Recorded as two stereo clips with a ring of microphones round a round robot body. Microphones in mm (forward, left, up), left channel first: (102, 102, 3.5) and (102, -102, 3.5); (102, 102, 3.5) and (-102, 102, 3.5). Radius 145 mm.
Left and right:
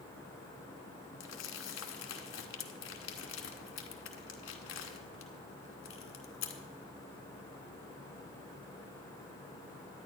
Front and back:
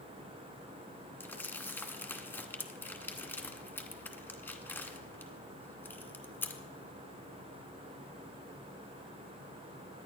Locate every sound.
1.2 s crumpling: 80° left, 1.3 m